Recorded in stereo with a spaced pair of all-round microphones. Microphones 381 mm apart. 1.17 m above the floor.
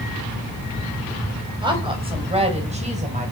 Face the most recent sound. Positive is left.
turn(degrees=-20)  # may be behind; listen again after turning